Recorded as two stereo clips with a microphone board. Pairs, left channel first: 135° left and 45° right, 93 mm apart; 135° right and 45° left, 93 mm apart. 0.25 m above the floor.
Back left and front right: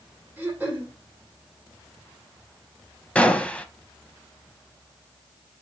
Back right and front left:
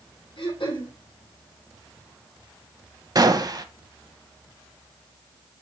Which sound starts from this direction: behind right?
Throat clearing, at 0.4 s.